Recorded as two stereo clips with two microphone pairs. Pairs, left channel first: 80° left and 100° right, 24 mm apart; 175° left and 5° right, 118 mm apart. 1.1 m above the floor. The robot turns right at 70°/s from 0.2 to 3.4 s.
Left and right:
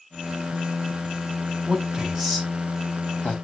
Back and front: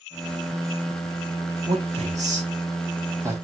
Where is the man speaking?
55° right, 3 m; by 3.3 s 60° left, 3 m.